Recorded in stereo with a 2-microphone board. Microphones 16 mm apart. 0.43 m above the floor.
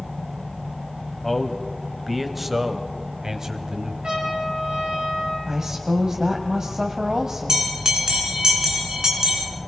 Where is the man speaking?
10° left (ahead or behind), 2.0 m; by 3.9 s 45° right (ahead or behind), 2 m.